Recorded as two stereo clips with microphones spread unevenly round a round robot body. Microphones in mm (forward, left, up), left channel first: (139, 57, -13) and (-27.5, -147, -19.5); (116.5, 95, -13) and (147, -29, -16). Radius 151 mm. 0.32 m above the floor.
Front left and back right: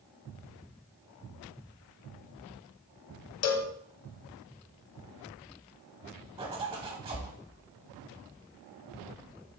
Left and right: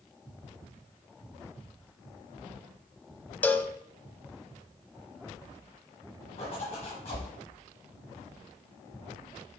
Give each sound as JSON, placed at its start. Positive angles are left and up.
{"t": 3.4, "sound": "a cowbell", "azimuth_deg": 25, "distance_m": 0.9}
{"t": 6.4, "sound": "a zipper", "azimuth_deg": 160, "distance_m": 0.8}